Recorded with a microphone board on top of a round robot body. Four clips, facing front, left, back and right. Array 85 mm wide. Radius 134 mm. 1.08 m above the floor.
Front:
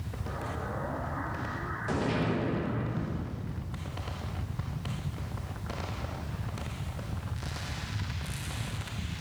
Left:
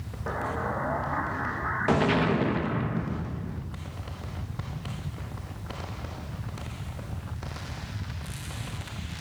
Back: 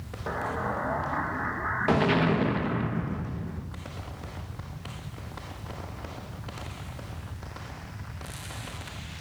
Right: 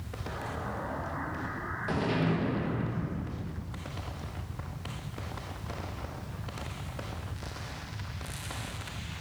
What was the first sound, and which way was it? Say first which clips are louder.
An explosion: left 7 dB, back 7 dB; 135° left.